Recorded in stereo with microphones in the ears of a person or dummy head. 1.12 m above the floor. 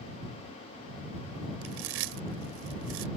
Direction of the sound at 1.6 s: 75° right (ahead or behind).